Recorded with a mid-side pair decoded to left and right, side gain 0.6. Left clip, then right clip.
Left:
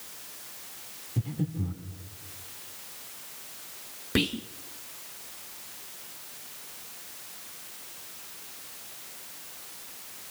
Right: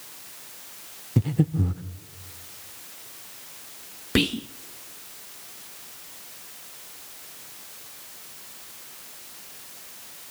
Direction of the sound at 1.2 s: 55° right.